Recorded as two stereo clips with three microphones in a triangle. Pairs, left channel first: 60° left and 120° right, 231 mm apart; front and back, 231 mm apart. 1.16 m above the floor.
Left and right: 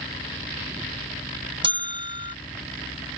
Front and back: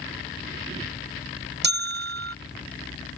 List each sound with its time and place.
1.6 s a bell: straight behind